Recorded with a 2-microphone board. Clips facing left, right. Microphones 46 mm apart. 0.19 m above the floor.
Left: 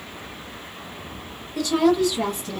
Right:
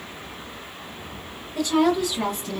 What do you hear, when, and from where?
1.6 s a woman speaking: 25° right (ahead or behind), 1.5 m; by 2.6 s centre (ahead or behind), 1.2 m